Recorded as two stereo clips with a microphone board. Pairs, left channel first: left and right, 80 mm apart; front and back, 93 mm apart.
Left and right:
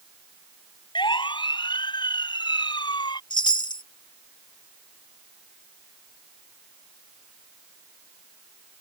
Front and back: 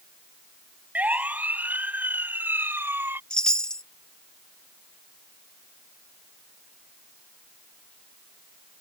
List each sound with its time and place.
0.9 s a siren: 105° left; by 3.2 s 115° left
3.3 s a chime: 80° left